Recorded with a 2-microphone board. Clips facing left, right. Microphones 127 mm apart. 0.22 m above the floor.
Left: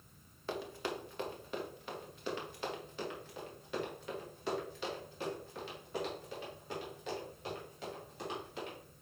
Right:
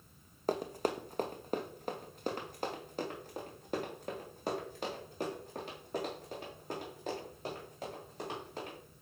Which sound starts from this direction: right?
Running footsteps, at 0.5 s.